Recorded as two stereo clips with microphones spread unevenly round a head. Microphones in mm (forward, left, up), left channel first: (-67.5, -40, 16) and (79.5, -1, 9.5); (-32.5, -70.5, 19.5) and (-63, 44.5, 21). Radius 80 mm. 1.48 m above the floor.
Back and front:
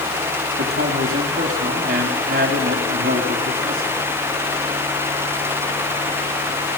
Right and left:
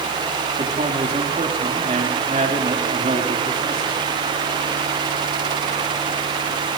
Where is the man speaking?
50° left, 3.5 m.